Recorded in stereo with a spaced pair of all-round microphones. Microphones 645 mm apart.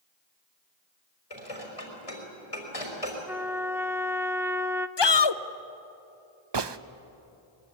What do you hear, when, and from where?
1.3 s dishes clattering: 65° left (ahead or behind), 4.5 m
3.3 s a trumpet: 5° right (ahead or behind), 0.5 m
5.0 s a shout: 40° left (ahead or behind), 0.8 m
6.5 s a gunshot: 45° right (ahead or behind), 0.6 m